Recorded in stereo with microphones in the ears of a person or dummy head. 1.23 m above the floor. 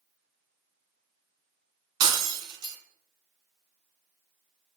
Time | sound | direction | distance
2.0 | breaking glass | 20° right (ahead or behind) | 2.5 m